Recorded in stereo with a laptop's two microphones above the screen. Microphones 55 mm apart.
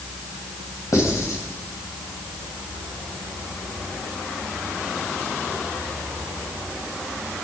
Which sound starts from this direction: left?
Writing, at 0.9 s.